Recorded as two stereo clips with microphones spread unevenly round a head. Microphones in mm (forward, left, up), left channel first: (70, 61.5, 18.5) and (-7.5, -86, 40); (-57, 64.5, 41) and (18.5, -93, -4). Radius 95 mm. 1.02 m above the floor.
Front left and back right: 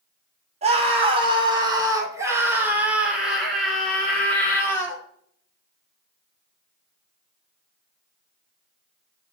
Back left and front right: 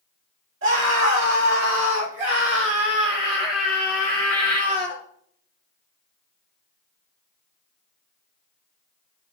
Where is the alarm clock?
No alarm clock in this recording.